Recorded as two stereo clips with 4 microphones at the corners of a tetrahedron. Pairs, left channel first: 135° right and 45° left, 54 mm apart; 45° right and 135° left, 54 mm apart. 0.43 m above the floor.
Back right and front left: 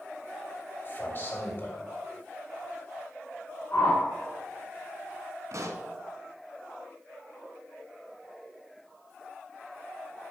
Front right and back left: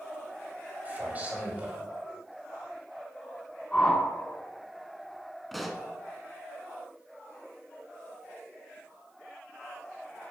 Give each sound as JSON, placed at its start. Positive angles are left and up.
{"t": 0.8, "sound": "a man speaking", "azimuth_deg": -170, "distance_m": 2.5}
{"t": 3.7, "sound": "a whoosh", "azimuth_deg": -105, "distance_m": 2.0}
{"t": 5.5, "sound": "a pop", "azimuth_deg": 45, "distance_m": 0.8}